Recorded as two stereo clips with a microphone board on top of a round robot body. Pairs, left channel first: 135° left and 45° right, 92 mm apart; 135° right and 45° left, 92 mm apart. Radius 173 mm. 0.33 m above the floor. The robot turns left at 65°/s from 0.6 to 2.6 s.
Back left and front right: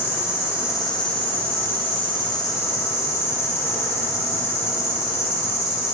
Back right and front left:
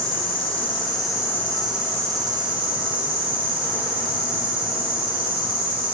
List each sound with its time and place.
0.0 s an insect: 160° right, 1.9 m; by 6.0 s 70° left, 1.9 m